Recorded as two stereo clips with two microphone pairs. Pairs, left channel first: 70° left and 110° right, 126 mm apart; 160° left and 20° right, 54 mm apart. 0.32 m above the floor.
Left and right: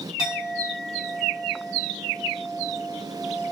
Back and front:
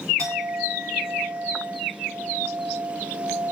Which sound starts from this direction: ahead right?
A clink, at 0.2 s.